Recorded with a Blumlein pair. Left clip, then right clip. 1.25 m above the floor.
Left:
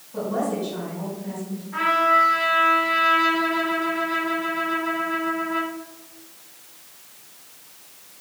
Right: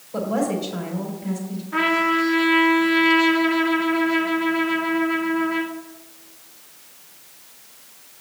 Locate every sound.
0.1 s a woman speaking: 50° right, 4 m
1.7 s a trumpet: 55° right, 1.5 m